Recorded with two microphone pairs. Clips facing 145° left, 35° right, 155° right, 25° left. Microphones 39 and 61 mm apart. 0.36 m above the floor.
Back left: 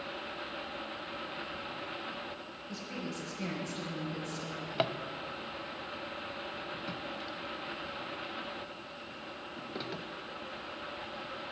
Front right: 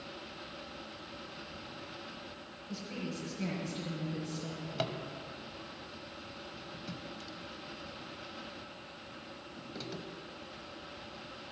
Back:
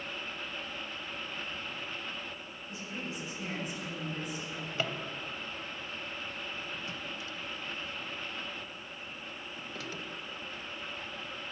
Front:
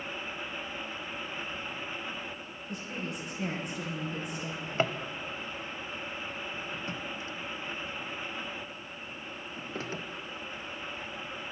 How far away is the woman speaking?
About 7 m.